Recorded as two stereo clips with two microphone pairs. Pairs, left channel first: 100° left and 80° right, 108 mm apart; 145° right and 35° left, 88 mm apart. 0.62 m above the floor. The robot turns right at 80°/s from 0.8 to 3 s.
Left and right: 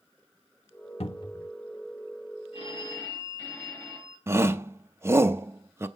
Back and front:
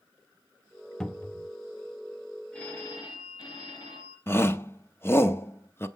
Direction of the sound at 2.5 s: 130° left.